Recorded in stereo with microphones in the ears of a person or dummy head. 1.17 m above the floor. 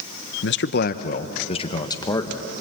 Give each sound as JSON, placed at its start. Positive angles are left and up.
{"t": 0.4, "sound": "a man speaking", "side_deg": 60, "distance_m": 1.0}